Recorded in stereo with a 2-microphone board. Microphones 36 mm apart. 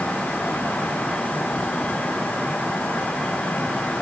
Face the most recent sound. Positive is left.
No sound to turn to.